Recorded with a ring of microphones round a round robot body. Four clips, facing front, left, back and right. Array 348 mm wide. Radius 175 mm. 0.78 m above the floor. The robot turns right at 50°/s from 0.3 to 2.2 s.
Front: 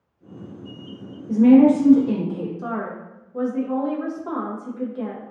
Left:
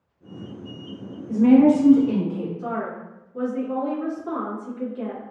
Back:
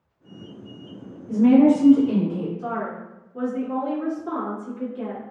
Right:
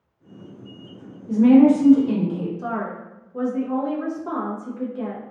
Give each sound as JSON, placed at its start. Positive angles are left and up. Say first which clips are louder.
{"t": 1.3, "sound": "a woman speaking", "louder": "right 1 dB, front 2 dB", "azimuth_deg": -65, "distance_m": 1.1}
{"t": 2.6, "sound": "a woman speaking", "louder": "right 1 dB, even", "azimuth_deg": -35, "distance_m": 0.7}